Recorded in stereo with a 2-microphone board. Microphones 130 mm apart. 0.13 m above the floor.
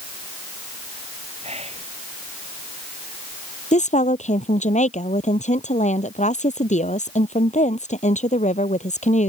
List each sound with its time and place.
1.4 s whispering: 55° right (ahead or behind)
3.7 s a woman speaking: 65° left (ahead or behind)